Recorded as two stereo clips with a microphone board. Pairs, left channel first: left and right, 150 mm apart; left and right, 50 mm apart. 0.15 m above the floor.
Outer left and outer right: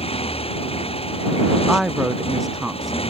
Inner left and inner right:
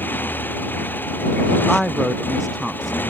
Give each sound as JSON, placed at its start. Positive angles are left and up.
{"t": 0.0, "sound": "a motorcycle", "side_deg": 40}
{"t": 1.7, "sound": "a woman speaking", "side_deg": 0}